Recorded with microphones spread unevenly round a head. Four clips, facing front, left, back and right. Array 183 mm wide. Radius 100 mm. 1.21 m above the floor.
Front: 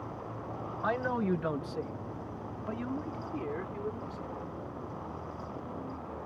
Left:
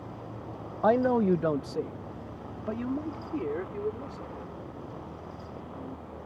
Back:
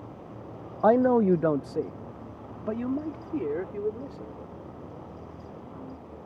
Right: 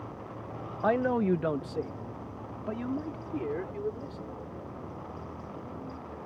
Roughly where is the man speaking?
Behind.